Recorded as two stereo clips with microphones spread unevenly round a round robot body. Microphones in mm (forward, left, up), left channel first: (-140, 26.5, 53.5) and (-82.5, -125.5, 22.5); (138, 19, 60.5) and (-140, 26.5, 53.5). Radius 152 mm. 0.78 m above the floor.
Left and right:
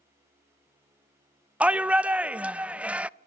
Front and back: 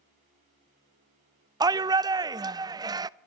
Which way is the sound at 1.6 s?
120° right.